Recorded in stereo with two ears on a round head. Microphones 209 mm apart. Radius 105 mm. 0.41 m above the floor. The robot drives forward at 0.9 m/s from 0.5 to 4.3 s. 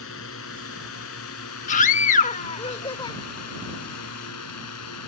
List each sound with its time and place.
0.0 s a drone: 60° left (ahead or behind); by 5.1 s 75° left (ahead or behind)
1.7 s a scream: 30° left (ahead or behind); by 3.2 s 20° left (ahead or behind)